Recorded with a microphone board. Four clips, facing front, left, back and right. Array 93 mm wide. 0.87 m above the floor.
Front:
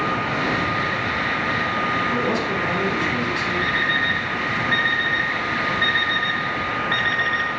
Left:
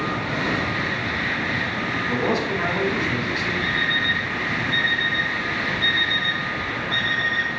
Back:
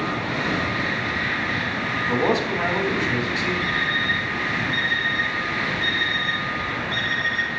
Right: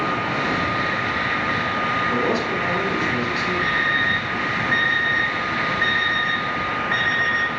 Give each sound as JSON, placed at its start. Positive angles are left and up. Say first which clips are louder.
{"t": 2.1, "sound": "a man speaking", "louder": "right 1 dB, back 1 dB", "azimuth_deg": -175, "distance_m": 3.5}
{"t": 3.6, "sound": "an alarm clock", "louder": "right 3 dB, front 2 dB", "azimuth_deg": -45, "distance_m": 3.0}